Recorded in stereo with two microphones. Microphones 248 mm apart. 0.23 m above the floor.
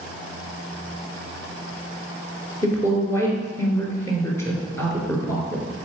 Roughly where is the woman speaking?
Centre.